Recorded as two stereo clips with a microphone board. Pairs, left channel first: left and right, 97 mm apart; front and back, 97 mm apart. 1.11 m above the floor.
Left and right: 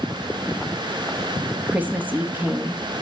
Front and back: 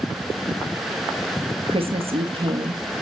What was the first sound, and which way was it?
A woman speaking, 160° right.